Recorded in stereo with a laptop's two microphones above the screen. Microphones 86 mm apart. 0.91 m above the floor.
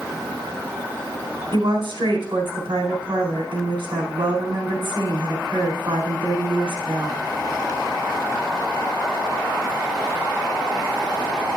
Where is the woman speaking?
70° right (ahead or behind), 4 m.